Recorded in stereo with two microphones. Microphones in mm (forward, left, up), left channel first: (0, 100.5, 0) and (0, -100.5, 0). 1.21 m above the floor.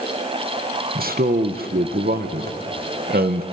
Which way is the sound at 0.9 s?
55° right (ahead or behind).